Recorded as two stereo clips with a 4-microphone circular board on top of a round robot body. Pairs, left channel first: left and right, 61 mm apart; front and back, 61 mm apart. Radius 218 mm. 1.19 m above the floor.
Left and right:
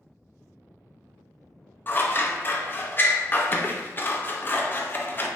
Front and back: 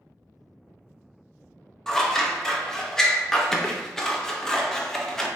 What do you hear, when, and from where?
1.9 s scissors: 75° left, 0.7 m